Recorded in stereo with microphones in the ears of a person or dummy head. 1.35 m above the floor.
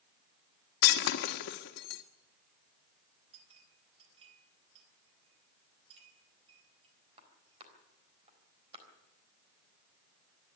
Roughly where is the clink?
Right.